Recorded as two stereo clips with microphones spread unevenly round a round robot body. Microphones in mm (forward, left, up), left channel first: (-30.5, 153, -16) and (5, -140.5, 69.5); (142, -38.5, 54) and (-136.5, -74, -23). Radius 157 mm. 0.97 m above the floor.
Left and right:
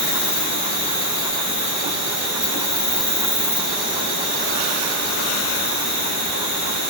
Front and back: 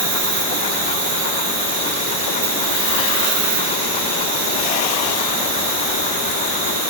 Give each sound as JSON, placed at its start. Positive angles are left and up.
{"t": 0.0, "sound": "an insect", "azimuth_deg": -170, "distance_m": 3.0}